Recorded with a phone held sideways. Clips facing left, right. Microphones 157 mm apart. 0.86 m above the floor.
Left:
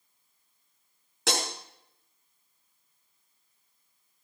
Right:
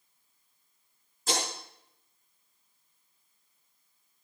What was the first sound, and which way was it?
Breaking glass, 75° left (ahead or behind).